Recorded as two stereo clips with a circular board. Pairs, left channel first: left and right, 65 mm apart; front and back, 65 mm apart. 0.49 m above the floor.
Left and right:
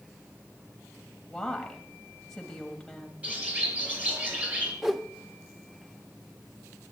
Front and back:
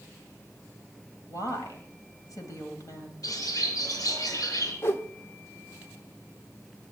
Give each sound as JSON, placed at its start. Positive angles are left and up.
{"t": 1.3, "sound": "a woman speaking", "azimuth_deg": 10, "distance_m": 2.5}
{"t": 3.2, "sound": "a bird", "azimuth_deg": -20, "distance_m": 6.0}
{"t": 4.8, "sound": "a whoosh", "azimuth_deg": -5, "distance_m": 1.1}